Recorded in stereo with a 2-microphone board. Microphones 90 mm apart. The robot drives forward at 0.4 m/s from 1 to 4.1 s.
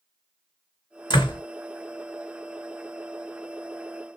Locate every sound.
1.1 s a door slam: 55° left (ahead or behind), 2.5 m